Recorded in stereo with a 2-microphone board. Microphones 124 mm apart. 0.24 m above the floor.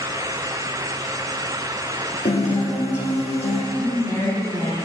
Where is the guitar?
60° left (ahead or behind), 2.5 m.